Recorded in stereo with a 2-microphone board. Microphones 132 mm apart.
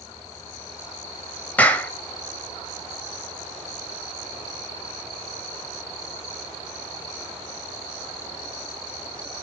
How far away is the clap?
About 1.5 m.